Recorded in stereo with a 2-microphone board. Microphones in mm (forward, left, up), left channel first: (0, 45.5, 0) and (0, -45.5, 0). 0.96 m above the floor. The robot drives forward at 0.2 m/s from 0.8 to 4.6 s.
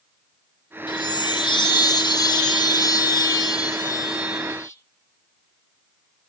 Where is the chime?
55° left (ahead or behind), 0.9 m; by 4.8 s 40° left (ahead or behind), 1.2 m.